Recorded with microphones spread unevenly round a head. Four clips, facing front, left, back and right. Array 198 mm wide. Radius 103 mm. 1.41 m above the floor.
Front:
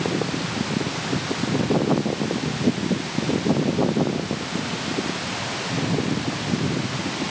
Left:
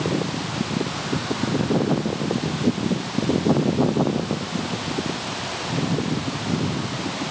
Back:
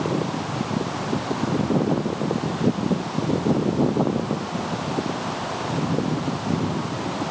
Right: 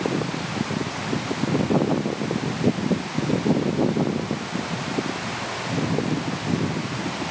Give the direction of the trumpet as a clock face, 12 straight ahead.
I don't hear a trumpet.